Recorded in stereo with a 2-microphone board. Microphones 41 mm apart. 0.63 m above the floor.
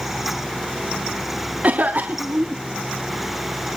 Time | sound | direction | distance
1.6 | a cough | 40° right (ahead or behind) | 1.5 m